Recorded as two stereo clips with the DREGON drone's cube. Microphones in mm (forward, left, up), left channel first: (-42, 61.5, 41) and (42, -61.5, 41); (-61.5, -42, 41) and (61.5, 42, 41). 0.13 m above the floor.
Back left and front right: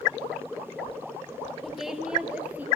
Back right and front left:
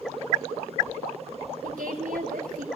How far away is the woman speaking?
About 3 m.